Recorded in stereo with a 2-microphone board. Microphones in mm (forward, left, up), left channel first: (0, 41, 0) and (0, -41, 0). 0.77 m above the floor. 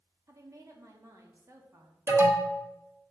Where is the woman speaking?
35° right (ahead or behind), 1.2 m.